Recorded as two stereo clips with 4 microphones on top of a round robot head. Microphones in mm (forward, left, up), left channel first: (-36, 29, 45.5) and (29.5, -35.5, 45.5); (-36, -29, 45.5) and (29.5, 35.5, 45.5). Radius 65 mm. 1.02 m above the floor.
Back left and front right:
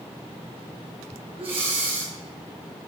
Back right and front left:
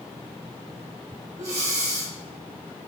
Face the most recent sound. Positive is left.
turn(degrees=-15)